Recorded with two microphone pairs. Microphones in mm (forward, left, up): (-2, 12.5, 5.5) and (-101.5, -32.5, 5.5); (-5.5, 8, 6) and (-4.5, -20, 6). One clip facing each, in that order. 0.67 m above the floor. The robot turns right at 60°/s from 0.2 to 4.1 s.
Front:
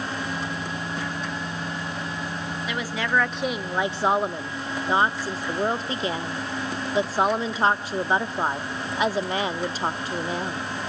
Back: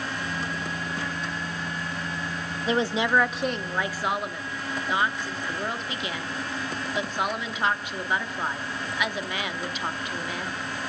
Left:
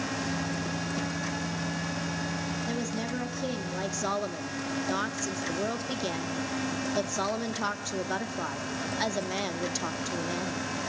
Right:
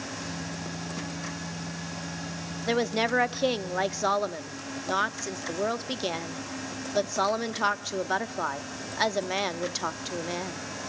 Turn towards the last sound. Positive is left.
turn(degrees=-30)